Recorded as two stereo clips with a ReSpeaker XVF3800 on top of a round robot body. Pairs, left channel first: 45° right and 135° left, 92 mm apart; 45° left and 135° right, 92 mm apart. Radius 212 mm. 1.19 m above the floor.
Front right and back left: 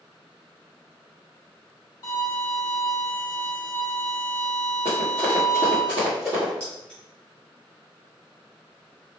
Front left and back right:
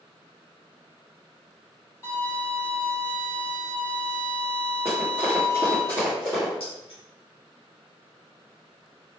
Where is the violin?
15° right, 1.6 m.